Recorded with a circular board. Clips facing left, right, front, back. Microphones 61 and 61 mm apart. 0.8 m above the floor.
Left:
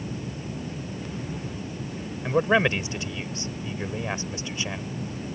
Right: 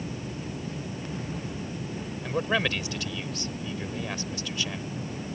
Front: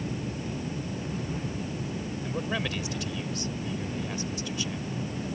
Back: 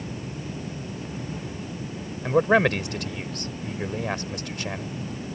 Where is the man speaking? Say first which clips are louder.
Left 6 dB, back 14 dB; 155° left.